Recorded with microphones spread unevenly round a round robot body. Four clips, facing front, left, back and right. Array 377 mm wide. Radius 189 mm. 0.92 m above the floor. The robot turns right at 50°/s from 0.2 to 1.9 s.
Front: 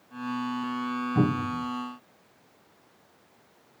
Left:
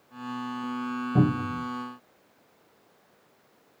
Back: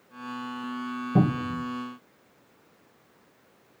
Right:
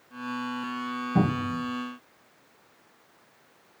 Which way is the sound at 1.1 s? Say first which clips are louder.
Left 1 dB, back 2 dB; 165° left.